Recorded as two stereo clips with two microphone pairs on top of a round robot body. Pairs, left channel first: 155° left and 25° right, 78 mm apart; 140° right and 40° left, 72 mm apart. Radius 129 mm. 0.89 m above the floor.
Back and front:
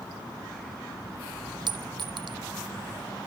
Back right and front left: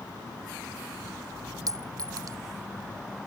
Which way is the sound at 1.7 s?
Straight ahead.